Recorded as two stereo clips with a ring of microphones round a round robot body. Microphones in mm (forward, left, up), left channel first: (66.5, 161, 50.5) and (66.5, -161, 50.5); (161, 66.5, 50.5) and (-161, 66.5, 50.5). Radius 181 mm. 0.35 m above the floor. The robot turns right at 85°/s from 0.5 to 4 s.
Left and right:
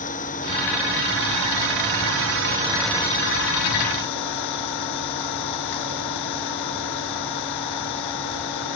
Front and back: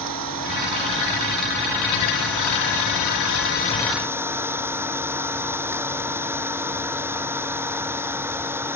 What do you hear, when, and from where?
0.0 s an engine running: 160° left; by 8.8 s 95° left